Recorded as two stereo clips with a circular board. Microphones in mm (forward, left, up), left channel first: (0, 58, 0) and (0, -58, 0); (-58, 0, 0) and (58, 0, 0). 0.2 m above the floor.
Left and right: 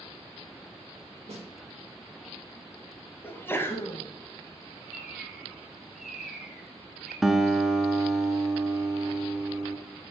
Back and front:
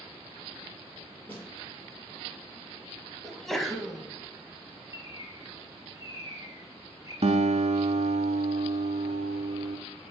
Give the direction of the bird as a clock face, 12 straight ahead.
12 o'clock.